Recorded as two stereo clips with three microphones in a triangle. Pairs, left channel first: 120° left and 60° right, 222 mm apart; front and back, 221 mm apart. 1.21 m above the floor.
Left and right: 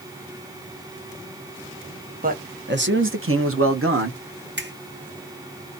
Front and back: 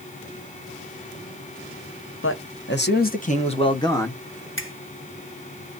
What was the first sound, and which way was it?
A man speaking, 15° right.